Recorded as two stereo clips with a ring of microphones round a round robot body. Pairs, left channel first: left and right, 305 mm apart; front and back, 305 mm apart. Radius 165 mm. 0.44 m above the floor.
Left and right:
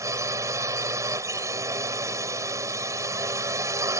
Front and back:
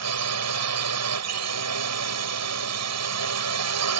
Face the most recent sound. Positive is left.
turn(degrees=-170)